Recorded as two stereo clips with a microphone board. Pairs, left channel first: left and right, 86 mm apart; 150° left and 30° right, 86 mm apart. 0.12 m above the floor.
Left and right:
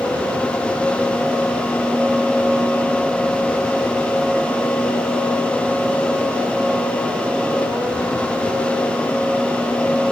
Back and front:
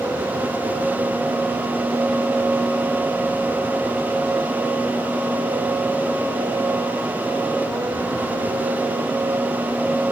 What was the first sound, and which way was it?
Only background noise.